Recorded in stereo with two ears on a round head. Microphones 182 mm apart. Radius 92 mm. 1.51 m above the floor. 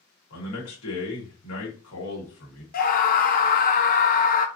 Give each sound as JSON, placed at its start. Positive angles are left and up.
{"t": 0.3, "sound": "a man speaking", "side_deg": 80, "distance_m": 1.7}
{"t": 2.7, "sound": "a scream", "side_deg": 45, "distance_m": 0.7}